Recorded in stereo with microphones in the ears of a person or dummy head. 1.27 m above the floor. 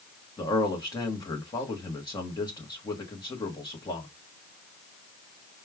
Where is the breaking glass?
No breaking glass in this recording.